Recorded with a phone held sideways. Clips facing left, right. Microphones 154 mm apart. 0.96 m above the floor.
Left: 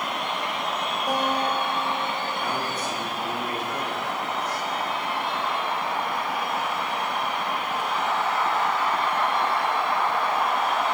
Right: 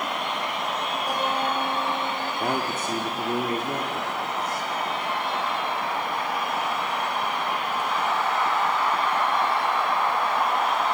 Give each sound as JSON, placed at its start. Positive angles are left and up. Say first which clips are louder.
{"t": 1.1, "sound": "a guitar", "louder": "left 2 dB", "side_deg": 20, "distance_m": 5.0}
{"t": 2.4, "sound": "a man speaking", "louder": "right 2 dB", "side_deg": -45, "distance_m": 1.8}